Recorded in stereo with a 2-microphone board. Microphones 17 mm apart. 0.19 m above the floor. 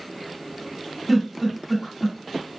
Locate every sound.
1.1 s a giggle: 5° left (ahead or behind), 1.9 m